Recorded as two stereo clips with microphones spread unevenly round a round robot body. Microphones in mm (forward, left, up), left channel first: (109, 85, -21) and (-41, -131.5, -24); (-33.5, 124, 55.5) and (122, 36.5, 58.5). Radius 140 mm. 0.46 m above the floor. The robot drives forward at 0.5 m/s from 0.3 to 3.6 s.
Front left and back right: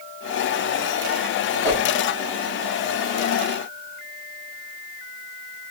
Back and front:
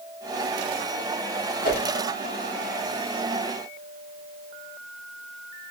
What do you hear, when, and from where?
1.6 s a whoosh: 140° left, 1.9 m